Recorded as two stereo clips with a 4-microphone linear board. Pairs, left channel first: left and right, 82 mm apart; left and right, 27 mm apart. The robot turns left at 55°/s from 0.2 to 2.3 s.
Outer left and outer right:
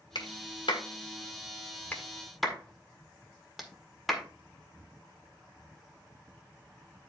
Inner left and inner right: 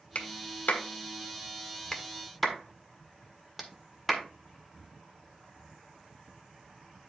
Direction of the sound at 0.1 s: 65° left (ahead or behind).